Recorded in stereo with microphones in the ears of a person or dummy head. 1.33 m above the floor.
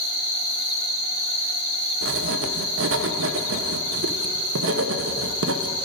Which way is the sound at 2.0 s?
70° right (ahead or behind).